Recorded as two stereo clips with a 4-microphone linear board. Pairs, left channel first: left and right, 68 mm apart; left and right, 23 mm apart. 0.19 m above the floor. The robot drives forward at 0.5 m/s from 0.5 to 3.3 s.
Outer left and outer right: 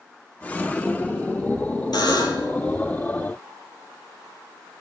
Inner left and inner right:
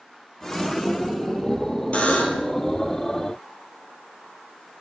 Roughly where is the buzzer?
Left.